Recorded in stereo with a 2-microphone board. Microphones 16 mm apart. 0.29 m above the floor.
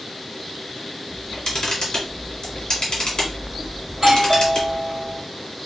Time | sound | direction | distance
1.1 | a camera shutter | 60° left (ahead or behind) | 1.6 m
3.9 | a doorbell | 25° right (ahead or behind) | 2.0 m